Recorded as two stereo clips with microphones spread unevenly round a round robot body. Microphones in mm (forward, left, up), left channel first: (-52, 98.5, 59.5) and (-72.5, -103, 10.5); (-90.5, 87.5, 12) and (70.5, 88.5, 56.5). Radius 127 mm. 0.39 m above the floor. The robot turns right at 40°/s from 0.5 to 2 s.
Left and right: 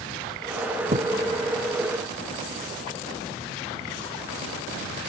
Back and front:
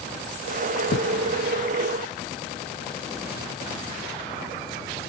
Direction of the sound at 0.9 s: 155° right.